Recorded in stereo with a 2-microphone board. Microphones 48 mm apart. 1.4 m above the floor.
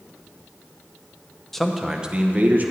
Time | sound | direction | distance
1.5 | a man speaking | 5° left (ahead or behind) | 1.0 m